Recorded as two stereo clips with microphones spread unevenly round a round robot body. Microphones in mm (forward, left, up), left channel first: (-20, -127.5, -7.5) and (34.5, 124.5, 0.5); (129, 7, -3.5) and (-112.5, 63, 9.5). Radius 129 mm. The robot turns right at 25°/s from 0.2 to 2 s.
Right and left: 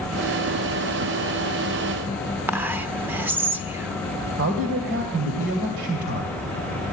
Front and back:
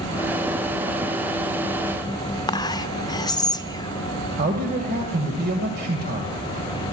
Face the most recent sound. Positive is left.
turn(degrees=120)